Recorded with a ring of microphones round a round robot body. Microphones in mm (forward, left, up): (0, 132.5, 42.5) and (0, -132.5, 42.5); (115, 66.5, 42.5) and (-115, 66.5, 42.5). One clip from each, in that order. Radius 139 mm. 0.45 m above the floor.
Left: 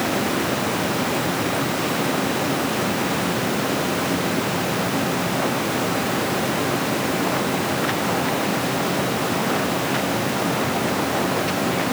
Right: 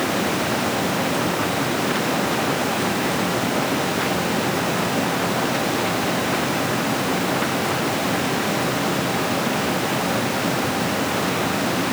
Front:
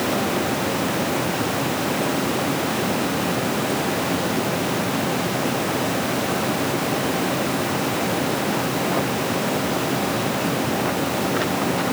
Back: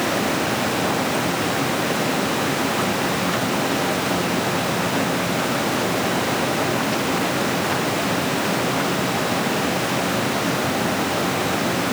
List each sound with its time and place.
Only background noise.